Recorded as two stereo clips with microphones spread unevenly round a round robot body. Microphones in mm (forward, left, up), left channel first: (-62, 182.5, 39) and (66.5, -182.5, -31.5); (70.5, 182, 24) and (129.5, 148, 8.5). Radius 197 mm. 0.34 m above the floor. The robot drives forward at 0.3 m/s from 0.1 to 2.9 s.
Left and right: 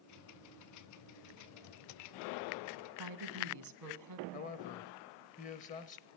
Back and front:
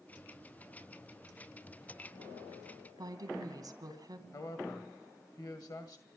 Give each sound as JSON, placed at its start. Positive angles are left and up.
{"t": 3.0, "sound": "a woman speaking", "azimuth_deg": -35, "distance_m": 2.5}
{"t": 4.3, "sound": "a man speaking", "azimuth_deg": -175, "distance_m": 1.6}